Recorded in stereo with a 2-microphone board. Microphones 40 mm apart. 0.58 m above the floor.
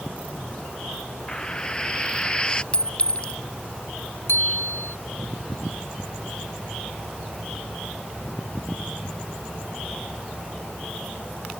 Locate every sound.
1.3 s frying: 20° left (ahead or behind)
2.7 s a clink: 30° left (ahead or behind)
4.3 s a bicycle bell: 80° left